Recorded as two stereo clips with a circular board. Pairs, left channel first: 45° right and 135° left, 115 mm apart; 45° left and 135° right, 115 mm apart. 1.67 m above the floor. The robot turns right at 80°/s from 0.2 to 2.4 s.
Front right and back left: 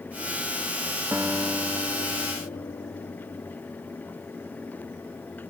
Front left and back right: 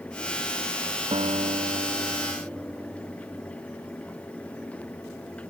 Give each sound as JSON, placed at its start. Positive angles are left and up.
{"t": 1.1, "sound": "a guitar", "azimuth_deg": -155, "distance_m": 0.7}